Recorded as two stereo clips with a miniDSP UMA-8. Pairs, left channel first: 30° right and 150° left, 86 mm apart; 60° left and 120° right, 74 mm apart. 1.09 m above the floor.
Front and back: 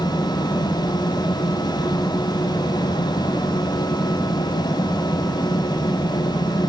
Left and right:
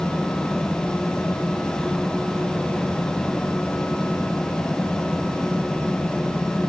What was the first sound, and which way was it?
Only background noise.